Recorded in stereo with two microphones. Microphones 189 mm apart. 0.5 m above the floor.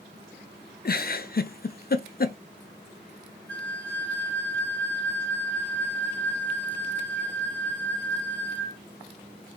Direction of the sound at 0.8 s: 55° left (ahead or behind).